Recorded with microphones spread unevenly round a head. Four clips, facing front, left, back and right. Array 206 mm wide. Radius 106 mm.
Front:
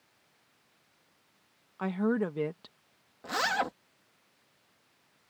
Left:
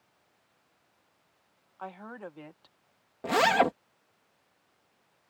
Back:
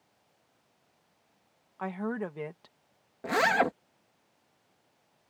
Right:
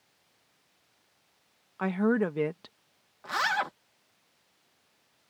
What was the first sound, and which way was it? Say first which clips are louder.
A woman speaking: right 15 dB, front 5 dB; 70° right.